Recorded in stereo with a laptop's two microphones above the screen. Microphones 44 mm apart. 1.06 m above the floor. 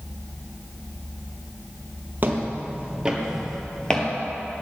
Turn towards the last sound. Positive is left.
turn(degrees=25)  # may be behind; listen again after turning